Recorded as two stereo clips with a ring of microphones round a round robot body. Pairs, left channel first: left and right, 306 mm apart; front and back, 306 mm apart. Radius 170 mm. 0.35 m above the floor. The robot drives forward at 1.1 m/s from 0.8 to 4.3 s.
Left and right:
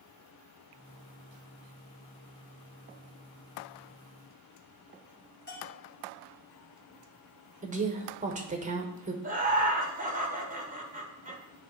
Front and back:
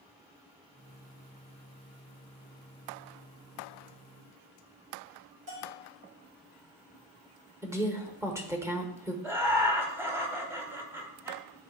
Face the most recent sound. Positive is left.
turn(degrees=-105)